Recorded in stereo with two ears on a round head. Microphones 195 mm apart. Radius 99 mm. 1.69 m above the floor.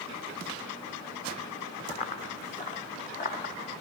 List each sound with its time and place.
1.9 s running footsteps: 30° left (ahead or behind), 4.5 m; by 3.7 s 40° left (ahead or behind), 4 m